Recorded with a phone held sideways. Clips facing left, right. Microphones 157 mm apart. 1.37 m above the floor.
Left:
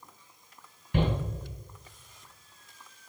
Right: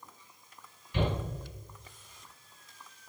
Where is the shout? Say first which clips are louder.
Left 3 dB; 65° left (ahead or behind), 4 m.